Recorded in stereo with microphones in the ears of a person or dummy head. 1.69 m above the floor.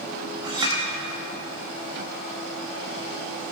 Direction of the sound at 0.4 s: 35° right (ahead or behind).